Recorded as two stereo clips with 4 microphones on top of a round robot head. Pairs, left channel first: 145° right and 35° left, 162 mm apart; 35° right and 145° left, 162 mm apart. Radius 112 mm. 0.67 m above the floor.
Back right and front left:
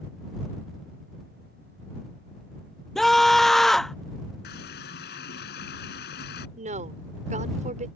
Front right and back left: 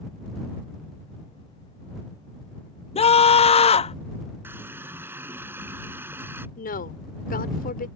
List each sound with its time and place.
3.0 s a scream: 60° right
4.4 s a running tap: 135° right
6.6 s a woman speaking: 5° right